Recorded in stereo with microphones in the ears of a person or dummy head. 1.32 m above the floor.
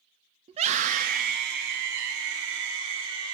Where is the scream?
30° right (ahead or behind), 2 m; by 3.4 s 75° right (ahead or behind), 5 m.